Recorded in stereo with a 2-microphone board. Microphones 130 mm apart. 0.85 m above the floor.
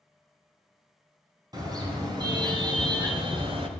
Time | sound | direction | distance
1.5 | a car horn | 30° right (ahead or behind) | 3 m